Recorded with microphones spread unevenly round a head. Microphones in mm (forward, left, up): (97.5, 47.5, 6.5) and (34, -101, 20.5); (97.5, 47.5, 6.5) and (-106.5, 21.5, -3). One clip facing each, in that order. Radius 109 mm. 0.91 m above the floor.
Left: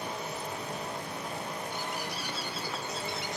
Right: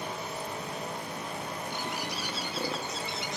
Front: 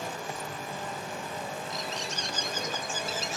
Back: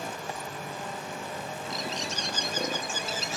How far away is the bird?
About 1.5 m.